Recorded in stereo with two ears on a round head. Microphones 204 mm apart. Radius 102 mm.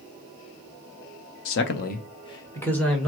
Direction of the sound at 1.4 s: 60° left (ahead or behind).